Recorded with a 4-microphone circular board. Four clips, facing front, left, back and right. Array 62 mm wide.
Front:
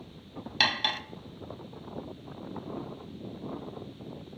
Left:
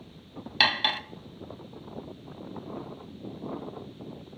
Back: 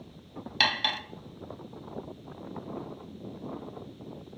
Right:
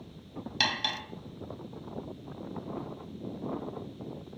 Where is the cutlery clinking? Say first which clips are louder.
Left 6 dB, back 1 dB; 95° left, 0.6 m.